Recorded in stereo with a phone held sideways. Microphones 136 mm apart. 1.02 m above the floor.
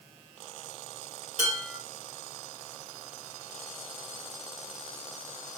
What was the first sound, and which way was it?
Dishes clattering, 65° right (ahead or behind).